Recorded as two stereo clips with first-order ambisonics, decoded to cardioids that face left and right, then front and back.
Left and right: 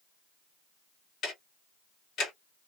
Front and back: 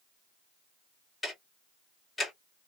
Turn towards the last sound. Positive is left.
turn(degrees=75)